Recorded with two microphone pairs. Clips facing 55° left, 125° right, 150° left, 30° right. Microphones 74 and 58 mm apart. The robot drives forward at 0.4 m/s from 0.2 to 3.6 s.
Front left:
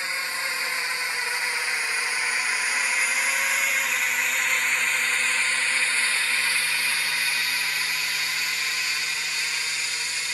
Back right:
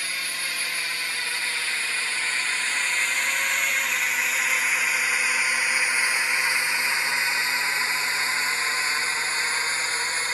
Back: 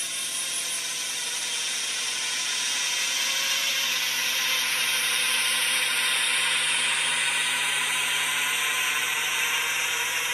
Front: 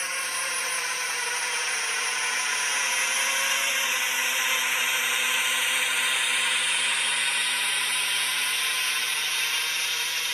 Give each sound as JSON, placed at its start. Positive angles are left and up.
{"t": 0.0, "sound": "a drone", "azimuth_deg": 0}